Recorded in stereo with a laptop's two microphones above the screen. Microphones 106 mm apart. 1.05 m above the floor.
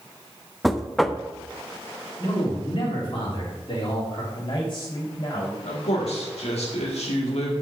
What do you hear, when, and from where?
0.6 s knocking: centre (ahead or behind), 0.6 m
2.2 s a man speaking: 55° left (ahead or behind), 3 m
4.3 s a man speaking: 50° left (ahead or behind), 4 m
5.6 s a man speaking: 80° left, 2 m